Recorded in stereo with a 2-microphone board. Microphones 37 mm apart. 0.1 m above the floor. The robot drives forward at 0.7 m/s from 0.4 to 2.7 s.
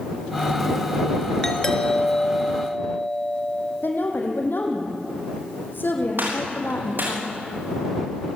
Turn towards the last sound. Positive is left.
turn(degrees=-60)  # may be behind; listen again after turning